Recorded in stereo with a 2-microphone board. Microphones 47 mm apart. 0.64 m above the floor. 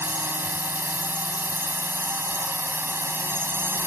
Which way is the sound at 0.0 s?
55° right (ahead or behind).